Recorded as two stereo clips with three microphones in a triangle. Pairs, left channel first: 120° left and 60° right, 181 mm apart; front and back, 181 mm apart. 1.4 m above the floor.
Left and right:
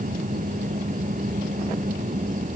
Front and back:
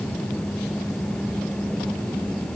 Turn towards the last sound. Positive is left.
No sound to turn to.